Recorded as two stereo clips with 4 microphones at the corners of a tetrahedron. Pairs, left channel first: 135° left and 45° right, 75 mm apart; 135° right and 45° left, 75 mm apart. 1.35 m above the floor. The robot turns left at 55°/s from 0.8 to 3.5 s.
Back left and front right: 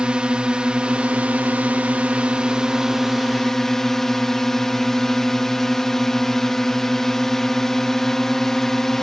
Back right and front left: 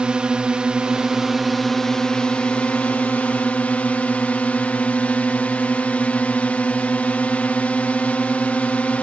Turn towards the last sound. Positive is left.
turn(degrees=-150)